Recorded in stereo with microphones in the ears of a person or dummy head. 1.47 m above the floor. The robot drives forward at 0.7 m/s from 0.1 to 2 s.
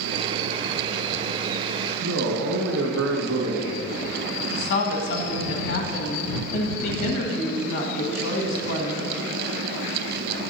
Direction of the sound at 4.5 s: 75° left (ahead or behind).